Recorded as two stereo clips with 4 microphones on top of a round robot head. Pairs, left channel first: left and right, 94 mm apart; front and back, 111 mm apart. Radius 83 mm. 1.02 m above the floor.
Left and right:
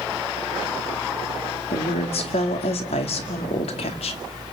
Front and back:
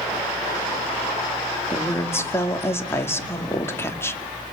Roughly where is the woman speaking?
Ahead left.